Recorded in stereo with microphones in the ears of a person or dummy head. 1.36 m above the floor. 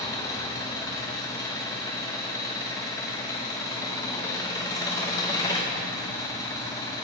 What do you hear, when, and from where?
0.0 s an engine running: 20° left (ahead or behind), 0.9 m